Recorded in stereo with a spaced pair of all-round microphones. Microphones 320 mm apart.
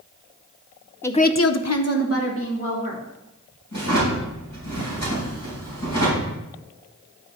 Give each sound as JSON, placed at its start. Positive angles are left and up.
{"t": 1.0, "sound": "a woman speaking", "side_deg": 5, "distance_m": 0.6}
{"t": 3.7, "sound": "a drawer", "side_deg": 65, "distance_m": 3.5}